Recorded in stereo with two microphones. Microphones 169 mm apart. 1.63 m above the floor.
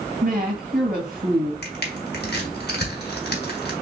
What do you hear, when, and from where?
0.2 s a woman speaking: 55° right (ahead or behind), 2.5 m
1.6 s crushing: 80° left, 1.2 m